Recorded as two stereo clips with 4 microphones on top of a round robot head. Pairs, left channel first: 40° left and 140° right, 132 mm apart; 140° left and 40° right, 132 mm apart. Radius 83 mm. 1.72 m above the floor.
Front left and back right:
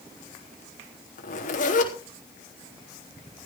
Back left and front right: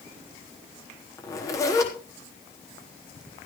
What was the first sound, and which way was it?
A zipper, 70° left.